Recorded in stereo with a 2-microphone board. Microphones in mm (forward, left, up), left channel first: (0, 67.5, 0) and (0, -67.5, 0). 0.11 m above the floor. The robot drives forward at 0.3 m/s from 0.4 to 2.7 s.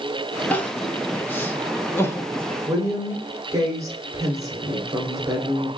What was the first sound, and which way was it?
Crying, 10° left (ahead or behind).